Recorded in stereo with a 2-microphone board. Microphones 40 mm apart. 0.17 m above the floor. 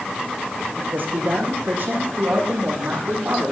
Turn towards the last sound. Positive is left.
turn(degrees=-60)  # may be behind; listen again after turning